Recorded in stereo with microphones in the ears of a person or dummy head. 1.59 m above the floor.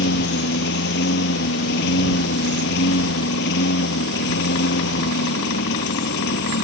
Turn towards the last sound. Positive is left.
turn(degrees=65)  # may be behind; listen again after turning